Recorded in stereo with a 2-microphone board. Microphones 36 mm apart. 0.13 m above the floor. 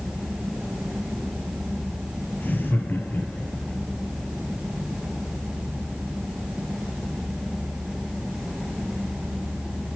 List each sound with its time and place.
2.4 s laughter: 65° left (ahead or behind), 3.5 m; by 3.8 s 55° left (ahead or behind), 3.5 m